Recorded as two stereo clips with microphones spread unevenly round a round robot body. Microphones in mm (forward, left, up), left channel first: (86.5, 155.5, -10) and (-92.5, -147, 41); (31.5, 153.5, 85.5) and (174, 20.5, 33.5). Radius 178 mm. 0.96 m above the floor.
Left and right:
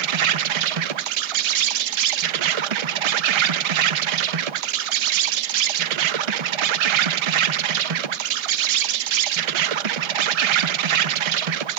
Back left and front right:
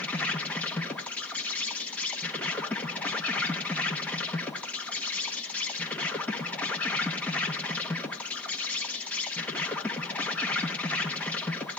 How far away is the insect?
About 0.8 m.